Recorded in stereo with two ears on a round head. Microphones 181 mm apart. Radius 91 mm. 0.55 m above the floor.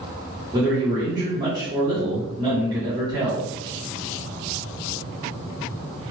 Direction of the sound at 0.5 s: 20° right (ahead or behind).